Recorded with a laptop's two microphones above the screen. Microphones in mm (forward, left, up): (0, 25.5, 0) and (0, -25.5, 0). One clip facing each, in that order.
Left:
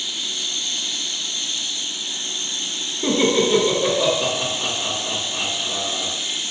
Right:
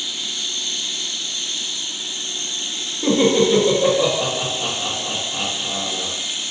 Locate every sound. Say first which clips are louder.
3.0 s laughter: right 3 dB; 25° right (ahead or behind), 1.6 m